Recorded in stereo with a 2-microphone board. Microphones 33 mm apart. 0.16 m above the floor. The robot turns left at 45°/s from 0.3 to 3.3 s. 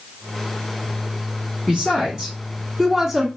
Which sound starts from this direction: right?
A woman speaking, at 1.7 s.